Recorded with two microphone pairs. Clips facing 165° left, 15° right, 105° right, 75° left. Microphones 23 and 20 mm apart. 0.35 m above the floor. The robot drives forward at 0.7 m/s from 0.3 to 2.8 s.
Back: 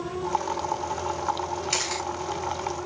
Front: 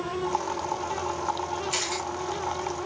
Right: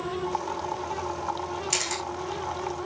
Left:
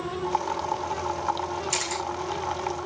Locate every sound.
1.7 s a camera shutter: 175° right, 5 m